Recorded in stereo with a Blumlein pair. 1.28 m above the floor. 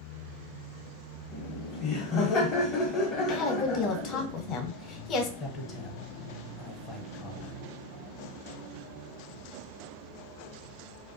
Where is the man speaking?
20° left, 0.6 m.